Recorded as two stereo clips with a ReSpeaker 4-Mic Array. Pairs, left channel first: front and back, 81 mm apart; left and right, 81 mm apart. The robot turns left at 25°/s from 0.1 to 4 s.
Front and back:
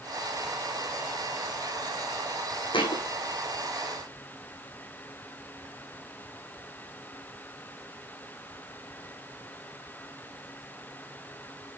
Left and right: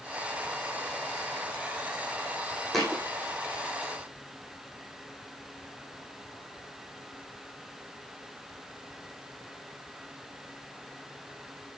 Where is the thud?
Straight ahead, 4.5 m; by 3.0 s 5° right, 4.5 m.